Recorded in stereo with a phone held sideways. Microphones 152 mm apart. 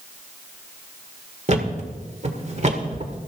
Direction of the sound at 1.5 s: 50° right (ahead or behind).